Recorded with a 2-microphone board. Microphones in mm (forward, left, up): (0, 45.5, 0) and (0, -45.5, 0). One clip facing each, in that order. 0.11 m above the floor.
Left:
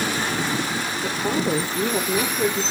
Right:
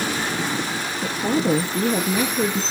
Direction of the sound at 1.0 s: 65° right (ahead or behind).